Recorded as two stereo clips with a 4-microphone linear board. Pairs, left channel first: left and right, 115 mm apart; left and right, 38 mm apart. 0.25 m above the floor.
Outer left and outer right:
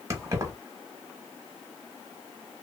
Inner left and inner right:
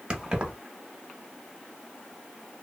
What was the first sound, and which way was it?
Keys jangling, 25° right (ahead or behind).